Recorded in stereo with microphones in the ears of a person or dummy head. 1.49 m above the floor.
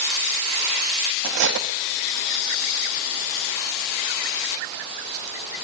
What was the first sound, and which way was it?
Cutlery clinking, 55° right (ahead or behind).